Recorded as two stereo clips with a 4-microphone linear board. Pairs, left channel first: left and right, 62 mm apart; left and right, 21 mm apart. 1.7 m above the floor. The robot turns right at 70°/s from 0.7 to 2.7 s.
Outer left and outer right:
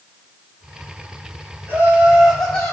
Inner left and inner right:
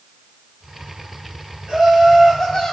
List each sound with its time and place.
1.7 s laughter: 40° right, 6.5 m; by 2.7 s 30° left, 6.5 m